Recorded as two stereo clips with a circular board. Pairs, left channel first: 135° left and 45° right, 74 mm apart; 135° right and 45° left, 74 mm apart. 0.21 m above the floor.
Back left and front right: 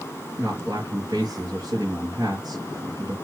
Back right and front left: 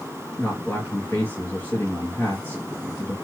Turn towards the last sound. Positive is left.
turn(degrees=-75)